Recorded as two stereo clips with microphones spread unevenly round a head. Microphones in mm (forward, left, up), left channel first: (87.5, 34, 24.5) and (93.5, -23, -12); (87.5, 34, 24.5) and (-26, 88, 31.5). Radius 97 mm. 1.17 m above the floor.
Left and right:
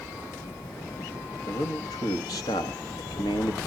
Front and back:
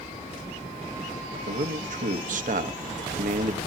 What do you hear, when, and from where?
1.5 s a man speaking: 135° left, 1.4 m